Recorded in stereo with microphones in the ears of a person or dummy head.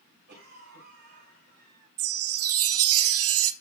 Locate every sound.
0.3 s a cough: 50° right (ahead or behind), 6 m
2.0 s a chime: 70° right (ahead or behind), 0.7 m